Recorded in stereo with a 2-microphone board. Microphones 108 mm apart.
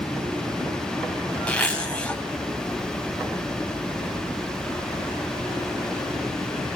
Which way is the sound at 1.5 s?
10° left (ahead or behind).